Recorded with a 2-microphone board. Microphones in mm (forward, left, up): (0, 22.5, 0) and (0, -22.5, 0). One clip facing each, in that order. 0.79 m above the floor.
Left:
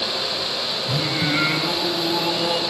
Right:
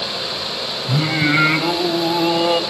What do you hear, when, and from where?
0.9 s singing: 30° right (ahead or behind), 3 m